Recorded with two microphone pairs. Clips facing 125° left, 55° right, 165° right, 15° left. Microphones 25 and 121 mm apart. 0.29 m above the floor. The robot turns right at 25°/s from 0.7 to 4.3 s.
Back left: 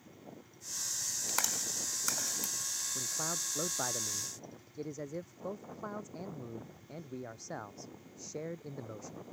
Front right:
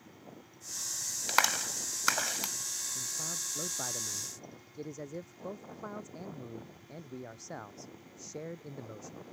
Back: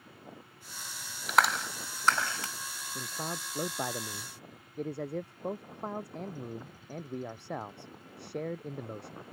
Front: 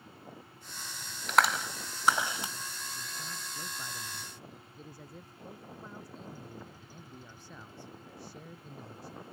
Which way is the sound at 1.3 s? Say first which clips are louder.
Front right 9 dB, even; 80° right.